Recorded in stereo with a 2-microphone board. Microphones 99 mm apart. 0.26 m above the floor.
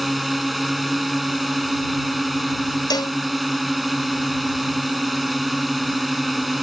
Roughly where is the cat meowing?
I don't hear a cat meowing.